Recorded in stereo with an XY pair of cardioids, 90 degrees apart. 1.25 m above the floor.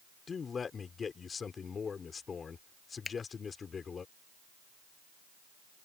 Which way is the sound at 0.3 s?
45° left.